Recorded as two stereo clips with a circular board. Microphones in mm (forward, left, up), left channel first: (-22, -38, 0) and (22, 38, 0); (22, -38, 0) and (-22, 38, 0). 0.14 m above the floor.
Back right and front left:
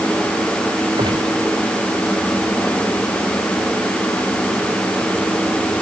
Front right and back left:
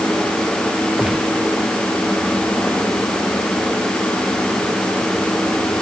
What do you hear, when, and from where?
1.0 s a gunshot: 35° left